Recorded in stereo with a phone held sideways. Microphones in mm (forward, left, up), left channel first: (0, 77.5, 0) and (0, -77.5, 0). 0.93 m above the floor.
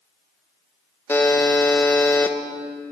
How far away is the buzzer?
About 0.6 m.